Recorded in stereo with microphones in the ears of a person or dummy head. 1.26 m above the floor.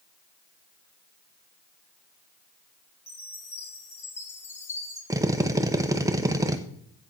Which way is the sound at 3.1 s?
10° left (ahead or behind).